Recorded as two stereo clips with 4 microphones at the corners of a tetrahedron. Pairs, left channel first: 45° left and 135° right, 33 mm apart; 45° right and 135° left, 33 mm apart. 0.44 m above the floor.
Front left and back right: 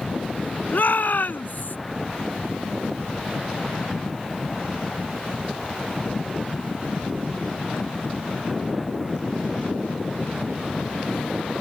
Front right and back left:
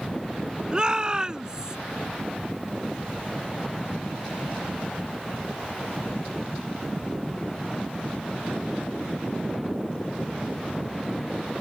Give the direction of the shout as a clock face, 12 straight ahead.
10 o'clock.